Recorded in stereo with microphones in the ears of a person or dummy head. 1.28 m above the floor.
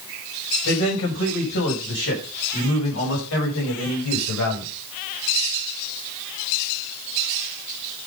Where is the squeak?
No squeak in this recording.